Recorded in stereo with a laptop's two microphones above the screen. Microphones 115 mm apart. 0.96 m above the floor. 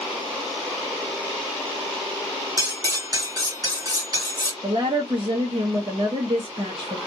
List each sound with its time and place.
2.6 s cutlery clinking: 35° right (ahead or behind), 1.3 m
4.6 s a woman speaking: 45° right (ahead or behind), 0.9 m